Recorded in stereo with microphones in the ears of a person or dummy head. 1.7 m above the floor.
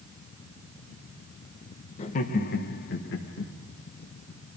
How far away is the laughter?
About 1.1 m.